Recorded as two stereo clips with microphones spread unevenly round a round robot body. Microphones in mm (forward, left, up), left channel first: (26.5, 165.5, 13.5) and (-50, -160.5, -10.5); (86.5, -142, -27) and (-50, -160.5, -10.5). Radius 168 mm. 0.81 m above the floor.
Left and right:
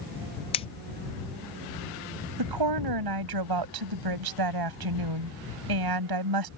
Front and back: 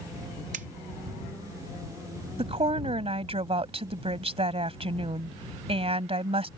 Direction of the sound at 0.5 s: 150° left.